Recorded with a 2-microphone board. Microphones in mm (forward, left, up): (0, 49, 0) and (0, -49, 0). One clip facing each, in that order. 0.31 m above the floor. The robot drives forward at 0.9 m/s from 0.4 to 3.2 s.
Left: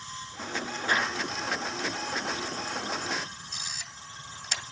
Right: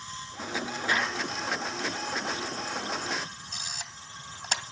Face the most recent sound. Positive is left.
turn(degrees=-45)  # may be behind; listen again after turning